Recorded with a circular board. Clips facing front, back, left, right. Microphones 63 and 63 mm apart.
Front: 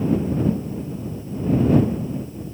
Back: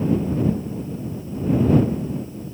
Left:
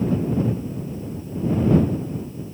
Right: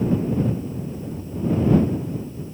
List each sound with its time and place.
Only background noise.